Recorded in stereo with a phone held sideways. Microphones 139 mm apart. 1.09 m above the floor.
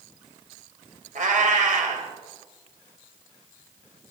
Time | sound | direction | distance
1.1 | a cat meowing | 70° right (ahead or behind) | 2 m